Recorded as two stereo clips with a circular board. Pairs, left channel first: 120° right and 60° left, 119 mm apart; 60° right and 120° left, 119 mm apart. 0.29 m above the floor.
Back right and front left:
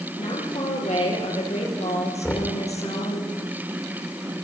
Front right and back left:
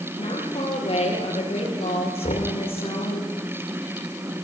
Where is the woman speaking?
95° right, 8 m.